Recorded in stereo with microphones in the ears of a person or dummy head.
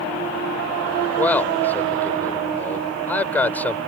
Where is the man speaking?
10° left (ahead or behind).